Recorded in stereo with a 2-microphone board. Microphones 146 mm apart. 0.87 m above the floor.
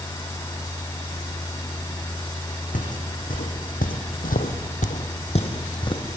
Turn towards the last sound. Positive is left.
turn(degrees=30)  # may be behind; listen again after turning